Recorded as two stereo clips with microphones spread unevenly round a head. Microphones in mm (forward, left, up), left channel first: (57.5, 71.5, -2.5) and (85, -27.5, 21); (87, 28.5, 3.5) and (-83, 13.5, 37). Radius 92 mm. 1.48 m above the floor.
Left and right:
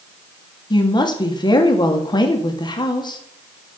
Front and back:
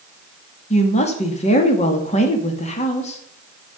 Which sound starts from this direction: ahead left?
A woman speaking, at 0.7 s.